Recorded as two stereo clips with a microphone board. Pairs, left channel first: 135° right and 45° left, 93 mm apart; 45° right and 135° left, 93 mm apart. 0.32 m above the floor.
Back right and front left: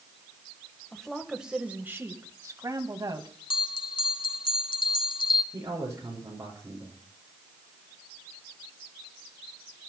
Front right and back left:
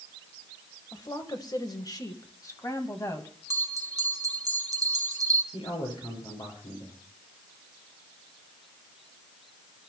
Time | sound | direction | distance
0.9 | a woman speaking | 55° right | 1.3 m
3.5 | a bell | 170° right | 0.9 m
5.5 | a man speaking | 15° right | 6.5 m